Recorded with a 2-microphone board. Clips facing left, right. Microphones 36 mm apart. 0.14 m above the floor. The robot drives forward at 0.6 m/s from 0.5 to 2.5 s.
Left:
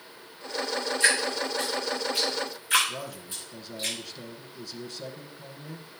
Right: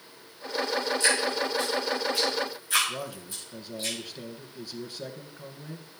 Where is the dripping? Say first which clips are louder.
Left 4 dB; 45° left (ahead or behind), 7 m; by 3.9 s 40° left (ahead or behind), 8 m.